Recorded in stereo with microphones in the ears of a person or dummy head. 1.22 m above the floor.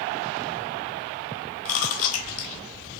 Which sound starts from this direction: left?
Chewing, at 1.6 s.